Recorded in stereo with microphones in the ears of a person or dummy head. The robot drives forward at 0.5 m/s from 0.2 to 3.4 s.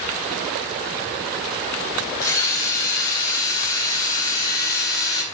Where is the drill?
15° left (ahead or behind), 4 m; by 5.2 s 20° left (ahead or behind), 3.5 m.